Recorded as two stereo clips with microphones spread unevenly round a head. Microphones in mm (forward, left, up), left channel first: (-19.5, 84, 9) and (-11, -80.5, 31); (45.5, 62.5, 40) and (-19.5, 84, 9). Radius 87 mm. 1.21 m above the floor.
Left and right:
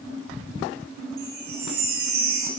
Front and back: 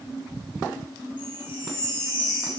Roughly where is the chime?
Ahead right.